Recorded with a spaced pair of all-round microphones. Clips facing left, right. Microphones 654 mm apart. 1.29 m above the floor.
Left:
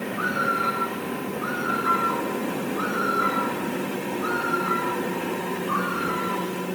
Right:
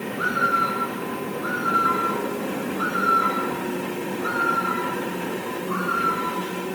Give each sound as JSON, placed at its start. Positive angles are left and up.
{"t": 0.1, "sound": "a bird", "side_deg": 10, "distance_m": 6.5}